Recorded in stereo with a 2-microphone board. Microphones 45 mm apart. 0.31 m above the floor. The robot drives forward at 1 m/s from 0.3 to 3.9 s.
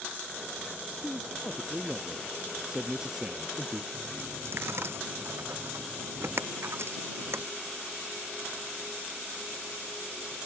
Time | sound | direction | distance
1.0 | a man speaking | 10° right (ahead or behind) | ?
3.9 | a dropped coin | 60° right (ahead or behind) | ?